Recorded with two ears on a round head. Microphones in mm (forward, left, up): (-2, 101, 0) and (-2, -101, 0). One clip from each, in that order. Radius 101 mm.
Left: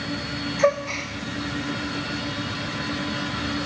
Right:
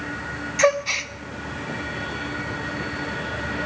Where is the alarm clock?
No alarm clock in this recording.